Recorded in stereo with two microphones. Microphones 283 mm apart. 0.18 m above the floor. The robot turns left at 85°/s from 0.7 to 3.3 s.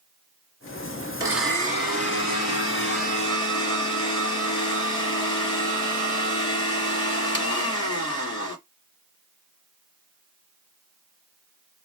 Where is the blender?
160° right, 1.9 m; by 8.6 s 20° left, 1.9 m.